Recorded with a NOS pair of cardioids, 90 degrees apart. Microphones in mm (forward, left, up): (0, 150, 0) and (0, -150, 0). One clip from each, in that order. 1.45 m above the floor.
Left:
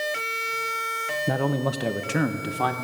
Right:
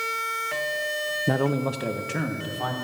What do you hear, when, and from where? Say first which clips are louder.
1.3 s a man speaking: right 1 dB; 15° right, 0.7 m; by 2.7 s 35° left, 1.3 m